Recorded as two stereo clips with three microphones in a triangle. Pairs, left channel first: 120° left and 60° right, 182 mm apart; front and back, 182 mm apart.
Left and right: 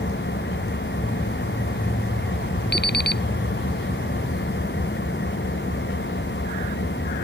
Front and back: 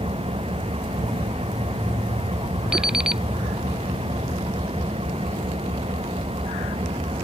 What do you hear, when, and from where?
0.0 s an engine running: 120° left
2.7 s an alarm clock: 95° left